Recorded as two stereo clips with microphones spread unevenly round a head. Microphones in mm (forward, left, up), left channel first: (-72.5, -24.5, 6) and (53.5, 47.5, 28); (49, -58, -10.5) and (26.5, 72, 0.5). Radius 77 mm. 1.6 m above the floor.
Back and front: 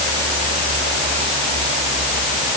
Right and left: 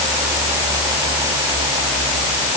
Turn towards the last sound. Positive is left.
No sound to turn to.